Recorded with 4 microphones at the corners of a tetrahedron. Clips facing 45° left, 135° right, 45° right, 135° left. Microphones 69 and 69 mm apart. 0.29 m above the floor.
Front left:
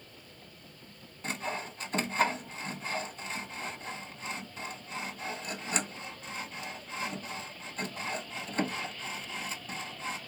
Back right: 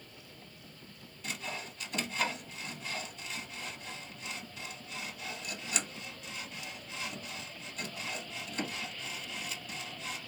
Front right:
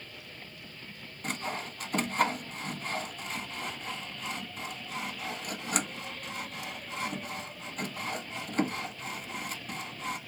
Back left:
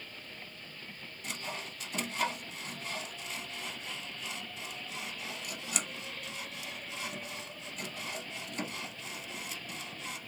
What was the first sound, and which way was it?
Sawing, 5° right.